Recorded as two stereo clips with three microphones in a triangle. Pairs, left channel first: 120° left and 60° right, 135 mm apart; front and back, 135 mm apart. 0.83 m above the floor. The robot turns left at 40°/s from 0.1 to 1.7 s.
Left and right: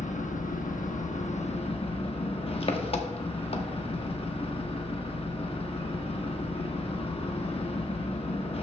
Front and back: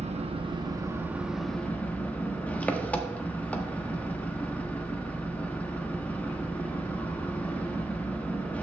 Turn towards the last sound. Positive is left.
turn(degrees=80)